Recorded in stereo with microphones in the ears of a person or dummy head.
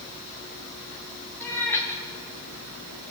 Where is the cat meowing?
15° left (ahead or behind), 4 m.